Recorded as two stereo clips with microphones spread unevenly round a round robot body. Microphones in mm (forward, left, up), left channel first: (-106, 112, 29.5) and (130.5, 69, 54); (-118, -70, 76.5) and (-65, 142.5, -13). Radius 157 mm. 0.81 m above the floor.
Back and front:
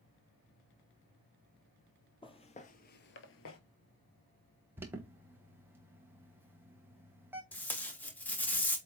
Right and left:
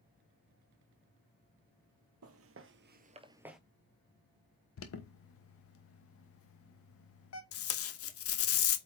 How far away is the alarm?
About 1.2 m.